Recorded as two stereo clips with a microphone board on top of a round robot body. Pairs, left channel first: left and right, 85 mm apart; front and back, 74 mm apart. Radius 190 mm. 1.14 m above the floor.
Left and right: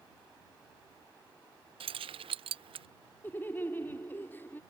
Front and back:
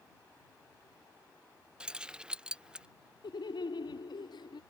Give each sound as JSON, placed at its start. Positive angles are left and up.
{"t": 1.8, "sound": "keys jangling", "azimuth_deg": -100}
{"t": 3.2, "sound": "laughter", "azimuth_deg": 20}